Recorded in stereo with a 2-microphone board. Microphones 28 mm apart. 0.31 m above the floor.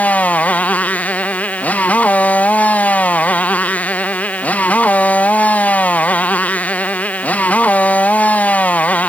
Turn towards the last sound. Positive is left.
turn(degrees=70)  # may be behind; listen again after turning